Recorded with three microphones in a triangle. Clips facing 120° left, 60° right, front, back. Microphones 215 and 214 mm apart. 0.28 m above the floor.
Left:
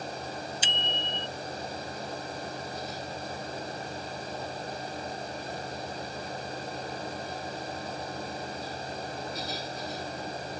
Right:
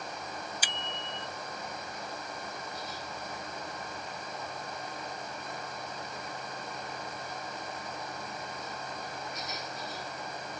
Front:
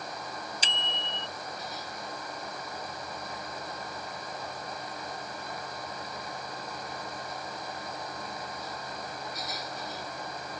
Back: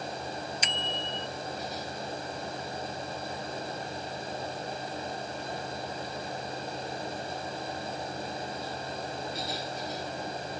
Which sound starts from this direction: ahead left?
A bicycle bell, at 0.6 s.